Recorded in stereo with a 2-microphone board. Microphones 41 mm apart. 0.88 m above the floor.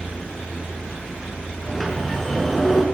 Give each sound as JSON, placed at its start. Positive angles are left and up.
{"t": 1.6, "sound": "a sliding door", "side_deg": 5, "distance_m": 8.0}